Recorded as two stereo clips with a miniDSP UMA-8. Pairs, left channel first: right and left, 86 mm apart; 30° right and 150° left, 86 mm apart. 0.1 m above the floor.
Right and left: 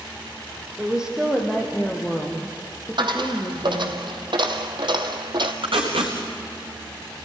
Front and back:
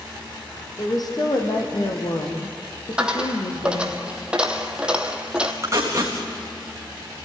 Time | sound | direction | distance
0.8 | a woman speaking | 10° left | 4 m
3.0 | a dropped coin | 70° left | 1.6 m
5.6 | tape being pulled | 90° left | 4.5 m